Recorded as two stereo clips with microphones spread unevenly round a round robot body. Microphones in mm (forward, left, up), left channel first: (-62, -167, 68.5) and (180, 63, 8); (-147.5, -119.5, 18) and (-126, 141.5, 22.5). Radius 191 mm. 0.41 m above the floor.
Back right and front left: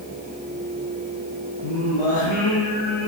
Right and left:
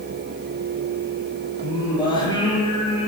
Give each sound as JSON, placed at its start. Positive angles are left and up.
{"t": 1.6, "sound": "singing", "azimuth_deg": -170, "distance_m": 7.5}